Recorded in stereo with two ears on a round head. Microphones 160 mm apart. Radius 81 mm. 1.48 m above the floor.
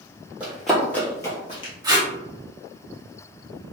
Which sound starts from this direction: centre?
Running footsteps, at 0.4 s.